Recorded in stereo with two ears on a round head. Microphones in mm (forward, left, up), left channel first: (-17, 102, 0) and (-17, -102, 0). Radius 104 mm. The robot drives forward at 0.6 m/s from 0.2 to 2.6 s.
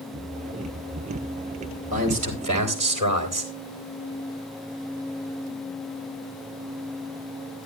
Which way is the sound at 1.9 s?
35° right (ahead or behind).